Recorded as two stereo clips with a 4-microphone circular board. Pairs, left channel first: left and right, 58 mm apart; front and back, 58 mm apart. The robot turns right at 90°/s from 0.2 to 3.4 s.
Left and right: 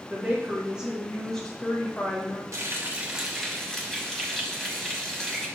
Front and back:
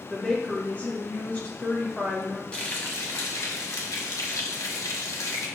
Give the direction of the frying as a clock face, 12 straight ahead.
2 o'clock.